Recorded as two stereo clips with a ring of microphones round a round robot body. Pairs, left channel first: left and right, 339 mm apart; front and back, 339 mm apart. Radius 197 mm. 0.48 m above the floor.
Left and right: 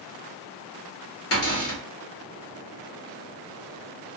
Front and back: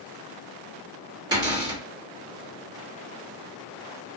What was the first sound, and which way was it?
A cupboard door, 105° left.